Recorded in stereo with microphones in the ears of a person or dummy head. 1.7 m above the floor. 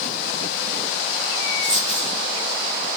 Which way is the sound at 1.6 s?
15° right (ahead or behind).